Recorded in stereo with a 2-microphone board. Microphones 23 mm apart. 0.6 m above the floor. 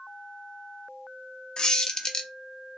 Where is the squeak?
35° left (ahead or behind), 0.6 m.